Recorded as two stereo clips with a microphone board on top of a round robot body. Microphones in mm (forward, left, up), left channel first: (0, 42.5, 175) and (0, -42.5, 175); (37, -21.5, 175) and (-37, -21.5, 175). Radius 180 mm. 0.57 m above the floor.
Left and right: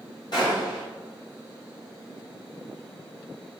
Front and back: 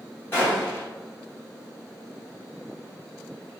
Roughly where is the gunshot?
Ahead left.